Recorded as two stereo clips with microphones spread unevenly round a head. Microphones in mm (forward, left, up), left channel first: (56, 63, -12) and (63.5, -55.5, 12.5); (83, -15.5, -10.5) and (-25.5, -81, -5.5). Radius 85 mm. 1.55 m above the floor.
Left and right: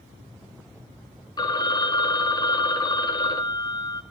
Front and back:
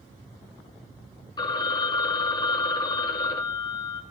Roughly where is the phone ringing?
Ahead left.